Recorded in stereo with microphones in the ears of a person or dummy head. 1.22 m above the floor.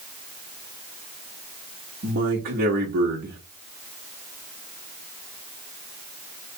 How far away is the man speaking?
About 1.3 m.